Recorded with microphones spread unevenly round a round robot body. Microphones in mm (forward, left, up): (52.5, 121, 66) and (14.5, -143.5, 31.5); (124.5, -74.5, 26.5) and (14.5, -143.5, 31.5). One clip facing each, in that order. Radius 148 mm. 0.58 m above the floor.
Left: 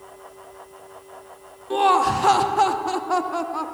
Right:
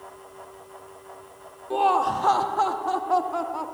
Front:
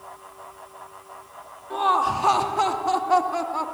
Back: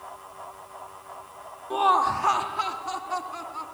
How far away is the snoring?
No snoring in this recording.